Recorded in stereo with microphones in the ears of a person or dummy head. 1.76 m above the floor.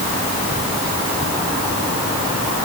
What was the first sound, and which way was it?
Only background noise.